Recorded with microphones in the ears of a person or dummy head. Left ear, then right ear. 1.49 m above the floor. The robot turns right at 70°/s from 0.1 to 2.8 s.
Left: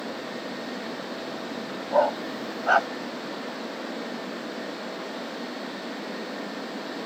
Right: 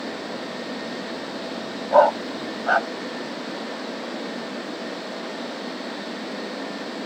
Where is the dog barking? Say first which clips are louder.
Right 7 dB; 35° right (ahead or behind); by 2.9 s 25° left (ahead or behind).